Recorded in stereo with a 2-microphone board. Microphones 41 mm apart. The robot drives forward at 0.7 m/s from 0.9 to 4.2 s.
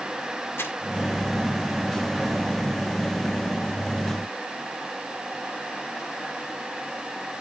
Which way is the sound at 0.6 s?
80° left.